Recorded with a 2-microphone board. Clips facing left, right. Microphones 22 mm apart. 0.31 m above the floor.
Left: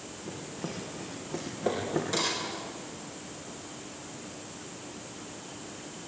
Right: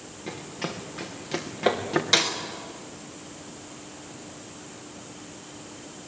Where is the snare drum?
65° right (ahead or behind), 3 m.